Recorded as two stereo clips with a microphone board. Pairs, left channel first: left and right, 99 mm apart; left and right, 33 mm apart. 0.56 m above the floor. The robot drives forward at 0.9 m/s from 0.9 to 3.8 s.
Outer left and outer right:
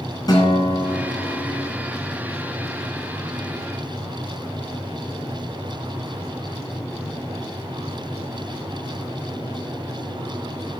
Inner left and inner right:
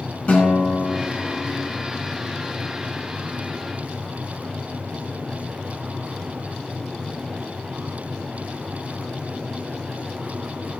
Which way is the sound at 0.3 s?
40° left (ahead or behind).